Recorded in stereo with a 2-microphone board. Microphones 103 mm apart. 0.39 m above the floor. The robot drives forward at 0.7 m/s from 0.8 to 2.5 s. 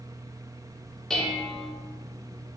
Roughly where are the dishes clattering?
Centre.